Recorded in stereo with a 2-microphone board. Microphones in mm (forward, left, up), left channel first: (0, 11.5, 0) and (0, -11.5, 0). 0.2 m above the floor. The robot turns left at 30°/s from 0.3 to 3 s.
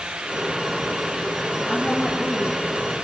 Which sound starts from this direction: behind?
A woman speaking, at 1.7 s.